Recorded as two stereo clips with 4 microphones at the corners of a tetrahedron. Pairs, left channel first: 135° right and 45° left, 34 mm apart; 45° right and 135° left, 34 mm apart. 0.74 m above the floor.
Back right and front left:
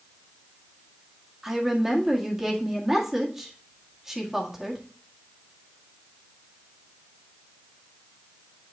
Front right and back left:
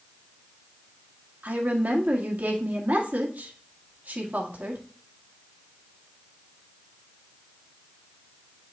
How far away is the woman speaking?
About 1.7 m.